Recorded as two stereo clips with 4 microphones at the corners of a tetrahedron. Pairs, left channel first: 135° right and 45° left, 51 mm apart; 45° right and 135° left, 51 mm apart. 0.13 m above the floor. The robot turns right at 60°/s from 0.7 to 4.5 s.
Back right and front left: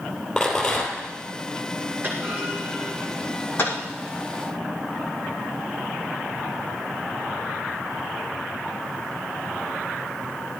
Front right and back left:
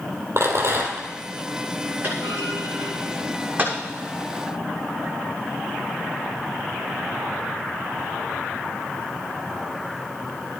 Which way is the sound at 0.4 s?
145° left.